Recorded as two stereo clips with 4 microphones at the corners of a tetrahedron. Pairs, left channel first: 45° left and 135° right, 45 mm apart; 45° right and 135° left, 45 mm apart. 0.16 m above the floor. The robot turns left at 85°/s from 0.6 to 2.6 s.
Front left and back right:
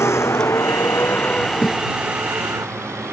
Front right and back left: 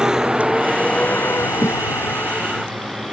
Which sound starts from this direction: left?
A thud, at 1.6 s.